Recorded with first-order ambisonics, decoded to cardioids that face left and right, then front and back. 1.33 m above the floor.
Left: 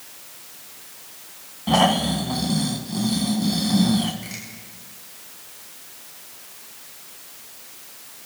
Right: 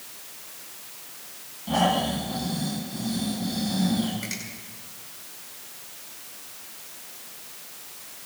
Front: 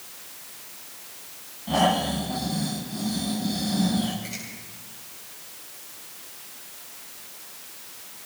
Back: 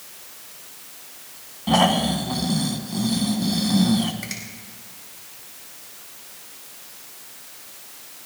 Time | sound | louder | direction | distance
1.7 | snoring | left 5 dB, back 3 dB | 135° left | 2 m
4.2 | a finger snap | right 2 dB, back 3 dB | 155° right | 8 m